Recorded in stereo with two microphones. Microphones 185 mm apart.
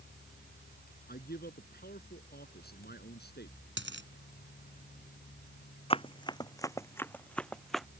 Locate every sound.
1.1 s a man speaking: 55° left (ahead or behind); by 3.6 s 60° left (ahead or behind)
3.8 s a dropped coin: 80° right
5.9 s running footsteps: 30° left (ahead or behind); by 7.9 s centre (ahead or behind)